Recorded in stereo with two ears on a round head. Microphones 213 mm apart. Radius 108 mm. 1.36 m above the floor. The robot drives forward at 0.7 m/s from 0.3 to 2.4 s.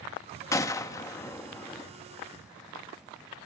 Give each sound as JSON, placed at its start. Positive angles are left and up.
{"t": 0.5, "sound": "a gunshot", "side_deg": 15, "distance_m": 0.7}